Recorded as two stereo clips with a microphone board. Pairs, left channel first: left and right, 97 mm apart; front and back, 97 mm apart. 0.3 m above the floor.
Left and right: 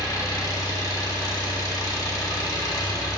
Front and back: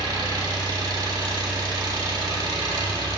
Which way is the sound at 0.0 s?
140° left.